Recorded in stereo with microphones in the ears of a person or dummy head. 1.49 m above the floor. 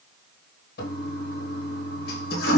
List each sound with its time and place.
0.8 s a toilet flushing: 60° left (ahead or behind), 1.4 m